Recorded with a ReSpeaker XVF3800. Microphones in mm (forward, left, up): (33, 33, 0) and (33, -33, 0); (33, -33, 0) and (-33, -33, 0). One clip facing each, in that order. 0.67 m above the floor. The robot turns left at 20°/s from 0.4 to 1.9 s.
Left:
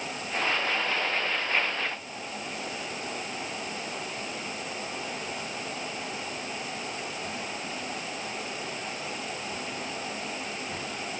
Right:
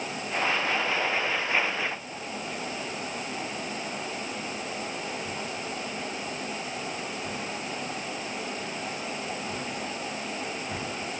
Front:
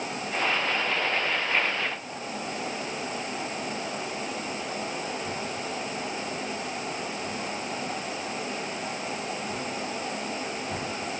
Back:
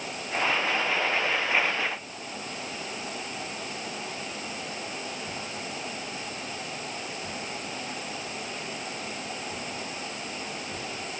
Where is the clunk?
I don't hear a clunk.